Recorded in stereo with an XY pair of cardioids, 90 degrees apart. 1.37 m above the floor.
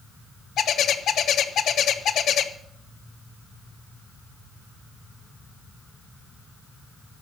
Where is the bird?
70° left, 1.1 m.